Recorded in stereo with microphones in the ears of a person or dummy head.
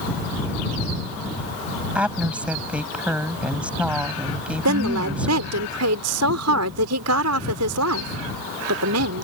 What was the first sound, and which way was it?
A woman speaking, 10° right (ahead or behind).